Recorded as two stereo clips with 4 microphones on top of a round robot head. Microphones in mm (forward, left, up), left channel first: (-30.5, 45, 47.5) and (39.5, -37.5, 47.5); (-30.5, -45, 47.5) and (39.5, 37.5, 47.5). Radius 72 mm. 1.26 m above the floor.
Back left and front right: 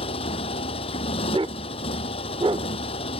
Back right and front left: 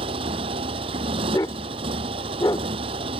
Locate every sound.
0.0 s a motorcycle: 95° left
1.3 s a dog barking: 80° right